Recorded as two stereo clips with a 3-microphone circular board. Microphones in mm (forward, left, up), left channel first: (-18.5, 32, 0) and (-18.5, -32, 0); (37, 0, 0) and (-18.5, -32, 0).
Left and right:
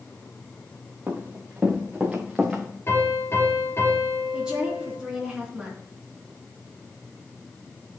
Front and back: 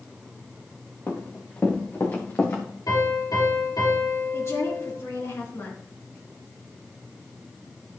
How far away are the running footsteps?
About 3 m.